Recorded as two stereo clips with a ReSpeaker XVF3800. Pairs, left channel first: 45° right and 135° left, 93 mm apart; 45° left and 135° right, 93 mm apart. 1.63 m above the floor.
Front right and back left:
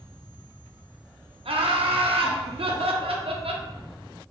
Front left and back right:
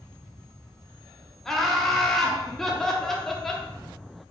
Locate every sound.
1.4 s laughter: 130° left, 0.5 m